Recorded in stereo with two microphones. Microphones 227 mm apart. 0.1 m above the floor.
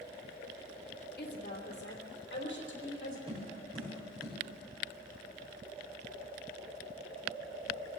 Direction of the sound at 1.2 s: 45° left (ahead or behind).